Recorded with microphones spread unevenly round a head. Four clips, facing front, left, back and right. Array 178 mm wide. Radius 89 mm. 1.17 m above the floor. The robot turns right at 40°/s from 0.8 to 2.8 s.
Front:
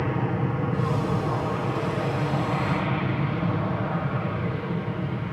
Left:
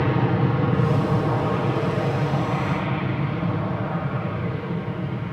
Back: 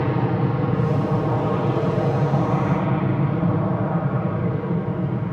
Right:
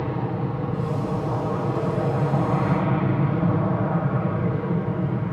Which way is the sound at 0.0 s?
135° left.